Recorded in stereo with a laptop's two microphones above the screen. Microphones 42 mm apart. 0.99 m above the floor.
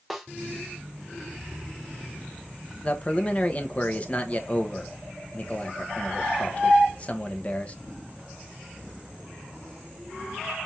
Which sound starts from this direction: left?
A man speaking, at 2.8 s.